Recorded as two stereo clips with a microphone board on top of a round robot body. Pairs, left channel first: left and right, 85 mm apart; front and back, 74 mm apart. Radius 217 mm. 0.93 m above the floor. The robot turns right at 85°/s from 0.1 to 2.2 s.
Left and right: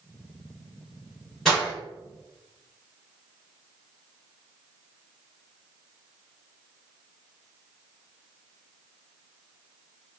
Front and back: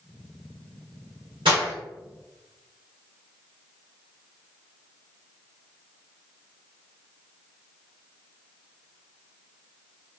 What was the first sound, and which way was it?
Breaking glass, 175° left.